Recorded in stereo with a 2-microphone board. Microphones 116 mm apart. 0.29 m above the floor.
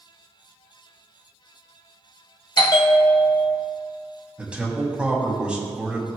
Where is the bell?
40° left (ahead or behind), 1.0 m.